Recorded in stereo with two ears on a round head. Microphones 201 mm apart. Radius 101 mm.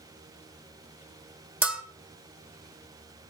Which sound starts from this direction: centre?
A bell, at 1.6 s.